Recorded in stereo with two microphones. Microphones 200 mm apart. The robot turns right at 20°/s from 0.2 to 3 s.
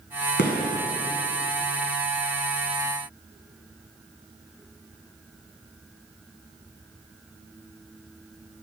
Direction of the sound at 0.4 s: 65° left (ahead or behind).